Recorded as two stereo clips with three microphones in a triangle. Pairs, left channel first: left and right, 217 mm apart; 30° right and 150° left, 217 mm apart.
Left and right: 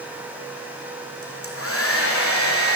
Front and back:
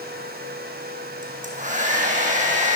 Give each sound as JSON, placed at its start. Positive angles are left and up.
{"t": 1.2, "sound": "a hair dryer", "azimuth_deg": 95, "distance_m": 4.5}